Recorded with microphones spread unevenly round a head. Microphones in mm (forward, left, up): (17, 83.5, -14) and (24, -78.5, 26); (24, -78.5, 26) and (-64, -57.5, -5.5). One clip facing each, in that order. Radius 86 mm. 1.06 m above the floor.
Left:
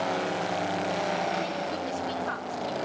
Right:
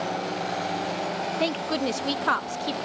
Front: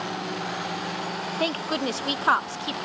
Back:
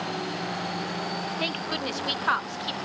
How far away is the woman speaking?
About 0.6 m.